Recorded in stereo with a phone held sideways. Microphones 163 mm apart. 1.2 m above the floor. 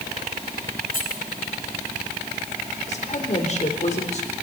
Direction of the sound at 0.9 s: 55° left (ahead or behind).